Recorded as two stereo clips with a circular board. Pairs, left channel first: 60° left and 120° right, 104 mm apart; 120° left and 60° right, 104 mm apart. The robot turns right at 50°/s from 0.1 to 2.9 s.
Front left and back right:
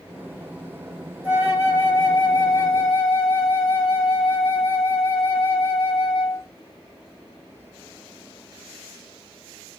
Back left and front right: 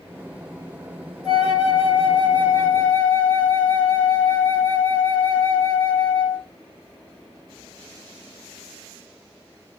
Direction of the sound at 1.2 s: 160° left.